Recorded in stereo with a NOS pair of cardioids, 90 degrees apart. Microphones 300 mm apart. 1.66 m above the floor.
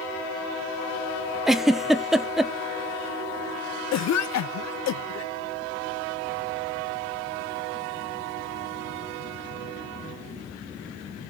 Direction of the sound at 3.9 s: 60° left.